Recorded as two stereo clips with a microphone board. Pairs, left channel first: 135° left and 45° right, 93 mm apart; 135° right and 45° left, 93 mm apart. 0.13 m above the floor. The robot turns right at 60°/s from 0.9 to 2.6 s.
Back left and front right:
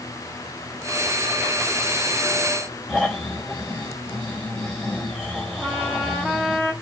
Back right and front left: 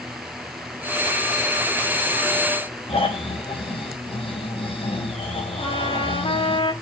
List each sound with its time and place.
2.9 s snoring: 130° right, 6.5 m
5.6 s a trumpet: 120° right, 8 m